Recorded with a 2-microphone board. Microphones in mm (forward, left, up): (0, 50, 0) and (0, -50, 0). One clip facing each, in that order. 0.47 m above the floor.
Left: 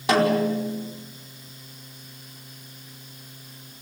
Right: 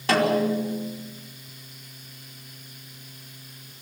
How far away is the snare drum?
About 4.5 m.